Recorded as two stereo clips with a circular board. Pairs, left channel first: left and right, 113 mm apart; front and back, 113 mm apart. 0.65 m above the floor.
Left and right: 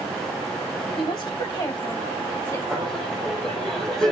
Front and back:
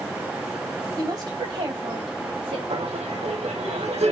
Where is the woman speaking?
135° left, 3 m; by 2.6 s 155° left, 4.5 m.